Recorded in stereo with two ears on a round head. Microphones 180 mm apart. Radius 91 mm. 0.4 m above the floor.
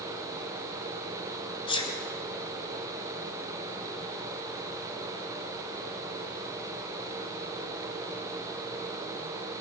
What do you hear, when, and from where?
1.7 s a sneeze: 25° left (ahead or behind), 3 m